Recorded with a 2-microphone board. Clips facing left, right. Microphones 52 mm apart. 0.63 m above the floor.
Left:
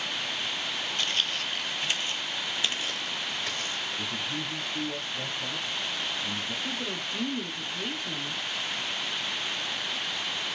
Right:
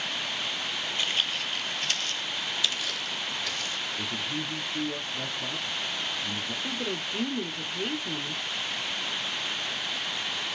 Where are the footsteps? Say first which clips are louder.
Right 1 dB; 15° right (ahead or behind), 0.7 m; by 3.9 s 35° left (ahead or behind), 1.4 m.